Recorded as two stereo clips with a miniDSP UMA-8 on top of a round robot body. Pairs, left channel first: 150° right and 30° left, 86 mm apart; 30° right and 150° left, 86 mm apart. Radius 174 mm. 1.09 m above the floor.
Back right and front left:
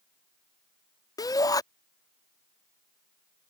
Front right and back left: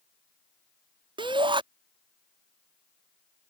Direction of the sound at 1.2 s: 165° left.